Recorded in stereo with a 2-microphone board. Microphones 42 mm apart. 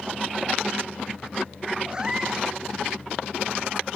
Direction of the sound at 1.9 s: 20° right (ahead or behind).